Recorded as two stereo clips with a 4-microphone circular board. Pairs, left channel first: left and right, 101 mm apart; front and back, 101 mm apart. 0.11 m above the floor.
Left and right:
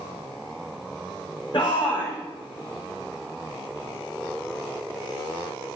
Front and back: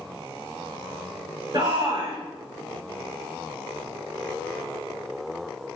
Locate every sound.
1.5 s a shout: 130° left, 7 m